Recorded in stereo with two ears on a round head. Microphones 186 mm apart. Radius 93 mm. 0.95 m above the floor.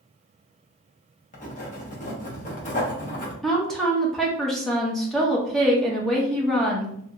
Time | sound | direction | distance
1.3 | writing | 40° left (ahead or behind) | 0.9 m
3.4 | a woman speaking | centre (ahead or behind) | 0.7 m